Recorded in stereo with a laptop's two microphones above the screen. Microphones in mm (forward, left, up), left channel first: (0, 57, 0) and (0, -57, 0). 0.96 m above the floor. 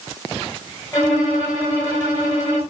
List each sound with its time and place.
0.9 s a violin: 25° left (ahead or behind), 4.5 m